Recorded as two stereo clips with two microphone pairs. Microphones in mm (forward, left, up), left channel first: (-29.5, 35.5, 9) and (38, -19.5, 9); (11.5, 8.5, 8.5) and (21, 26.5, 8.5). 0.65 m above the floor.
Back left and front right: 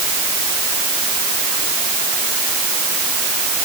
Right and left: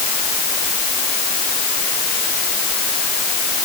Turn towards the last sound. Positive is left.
No sound to turn to.